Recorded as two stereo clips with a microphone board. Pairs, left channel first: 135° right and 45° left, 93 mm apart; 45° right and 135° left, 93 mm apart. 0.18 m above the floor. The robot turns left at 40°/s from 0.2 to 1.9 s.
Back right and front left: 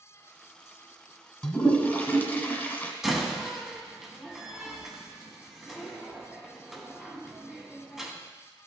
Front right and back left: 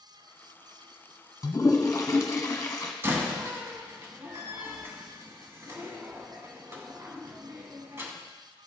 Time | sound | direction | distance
1.4 | a toilet flushing | 60° right | 1.0 m
3.0 | a door slam | 125° left | 1.0 m